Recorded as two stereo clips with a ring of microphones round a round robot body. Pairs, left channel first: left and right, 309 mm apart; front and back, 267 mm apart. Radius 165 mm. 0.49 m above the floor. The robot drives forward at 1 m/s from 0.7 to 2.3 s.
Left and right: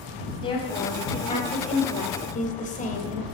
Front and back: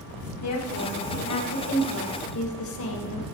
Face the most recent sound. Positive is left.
turn(degrees=25)